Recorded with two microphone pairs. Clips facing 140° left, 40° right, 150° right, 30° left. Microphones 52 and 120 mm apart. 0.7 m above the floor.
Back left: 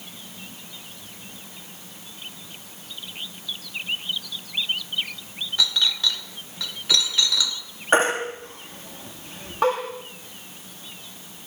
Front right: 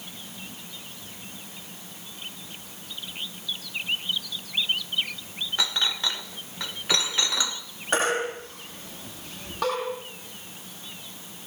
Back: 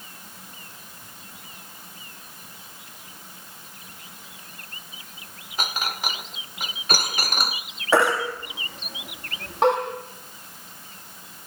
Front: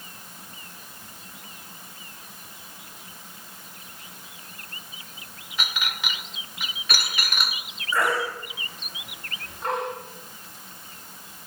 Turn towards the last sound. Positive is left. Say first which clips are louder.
# back left 4 dB, back 5 dB
turn(degrees=-160)